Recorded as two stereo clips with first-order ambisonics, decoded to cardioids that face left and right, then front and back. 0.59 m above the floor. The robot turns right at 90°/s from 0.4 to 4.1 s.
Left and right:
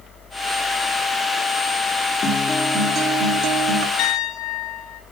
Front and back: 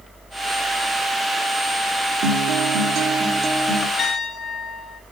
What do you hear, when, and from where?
2.2 s a guitar: 145° left, 0.9 m; by 3.9 s 65° right, 0.9 m
4.0 s a piano: 65° left, 3 m; by 5.0 s 75° left, 3 m